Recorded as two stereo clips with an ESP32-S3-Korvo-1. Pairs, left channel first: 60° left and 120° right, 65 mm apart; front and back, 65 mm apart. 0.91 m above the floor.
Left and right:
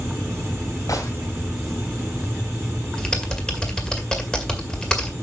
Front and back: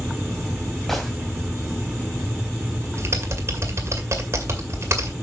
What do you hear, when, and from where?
0.9 s a gunshot: 85° left, 2.5 m
3.0 s typing on a keyboard: 140° left, 2 m